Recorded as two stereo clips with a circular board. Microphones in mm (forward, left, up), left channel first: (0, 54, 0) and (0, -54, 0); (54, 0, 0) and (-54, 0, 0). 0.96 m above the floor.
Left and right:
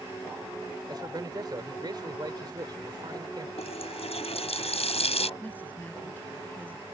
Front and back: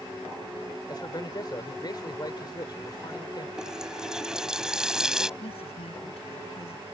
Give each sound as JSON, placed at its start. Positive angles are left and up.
{"t": 0.9, "sound": "a man speaking", "azimuth_deg": -45}
{"t": 3.6, "sound": "a running tap", "azimuth_deg": 95}
{"t": 5.4, "sound": "a woman speaking", "azimuth_deg": 15}